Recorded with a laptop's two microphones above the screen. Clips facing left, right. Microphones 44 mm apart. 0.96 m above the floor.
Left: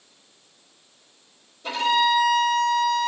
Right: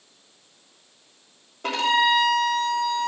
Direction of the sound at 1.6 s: 55° right (ahead or behind).